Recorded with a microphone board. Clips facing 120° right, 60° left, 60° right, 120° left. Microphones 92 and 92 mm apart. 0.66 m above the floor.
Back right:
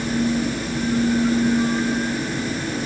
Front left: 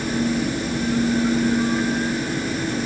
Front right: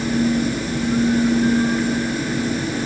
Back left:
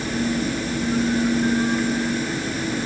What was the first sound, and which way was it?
Only background noise.